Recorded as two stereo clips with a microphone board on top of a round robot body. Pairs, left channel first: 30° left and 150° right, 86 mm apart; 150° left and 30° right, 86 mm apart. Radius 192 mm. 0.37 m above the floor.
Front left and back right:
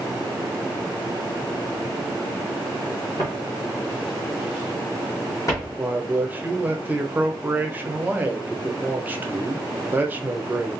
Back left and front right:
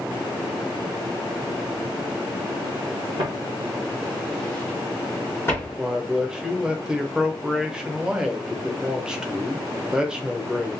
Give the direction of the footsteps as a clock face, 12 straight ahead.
1 o'clock.